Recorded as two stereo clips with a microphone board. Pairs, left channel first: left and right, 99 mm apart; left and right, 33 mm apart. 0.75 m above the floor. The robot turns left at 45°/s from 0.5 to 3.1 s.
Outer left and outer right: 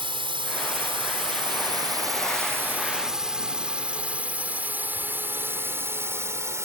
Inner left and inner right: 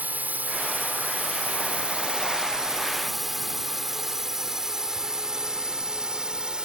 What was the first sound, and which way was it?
A drone, 60° right (ahead or behind).